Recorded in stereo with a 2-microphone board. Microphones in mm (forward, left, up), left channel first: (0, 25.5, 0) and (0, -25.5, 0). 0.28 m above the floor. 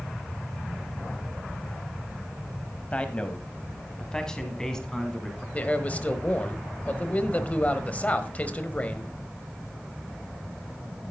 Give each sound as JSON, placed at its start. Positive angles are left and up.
{"t": 2.9, "sound": "a man speaking", "side_deg": 25, "distance_m": 1.4}
{"t": 5.5, "sound": "a man speaking", "side_deg": 30, "distance_m": 1.2}